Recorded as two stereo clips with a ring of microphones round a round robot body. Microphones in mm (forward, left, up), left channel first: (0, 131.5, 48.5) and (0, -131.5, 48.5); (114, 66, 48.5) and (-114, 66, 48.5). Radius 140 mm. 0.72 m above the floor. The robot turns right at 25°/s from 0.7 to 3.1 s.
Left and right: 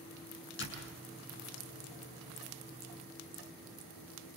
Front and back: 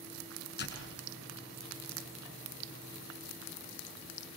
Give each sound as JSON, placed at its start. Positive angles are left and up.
{"t": 0.6, "sound": "a door slam", "azimuth_deg": 40, "distance_m": 6.0}